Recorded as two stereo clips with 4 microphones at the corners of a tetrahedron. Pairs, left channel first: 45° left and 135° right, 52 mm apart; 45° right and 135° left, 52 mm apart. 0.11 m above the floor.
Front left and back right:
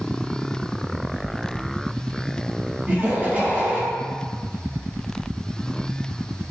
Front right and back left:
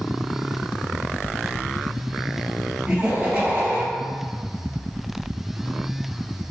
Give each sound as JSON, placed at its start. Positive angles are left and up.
{"t": 2.9, "sound": "laughter", "azimuth_deg": -165, "distance_m": 1.5}